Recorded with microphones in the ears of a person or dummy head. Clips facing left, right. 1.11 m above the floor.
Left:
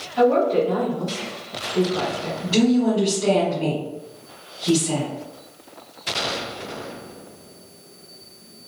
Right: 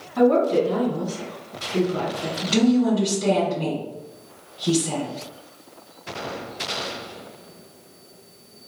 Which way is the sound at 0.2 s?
50° right (ahead or behind).